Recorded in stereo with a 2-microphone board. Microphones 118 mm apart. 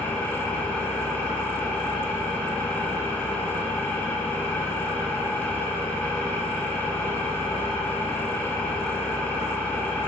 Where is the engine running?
15° left (ahead or behind), 0.9 m.